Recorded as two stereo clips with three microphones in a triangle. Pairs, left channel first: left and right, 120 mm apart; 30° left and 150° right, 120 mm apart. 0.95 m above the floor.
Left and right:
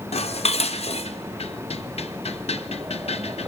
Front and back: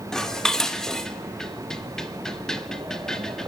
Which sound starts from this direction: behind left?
Dishes clattering, at 0.1 s.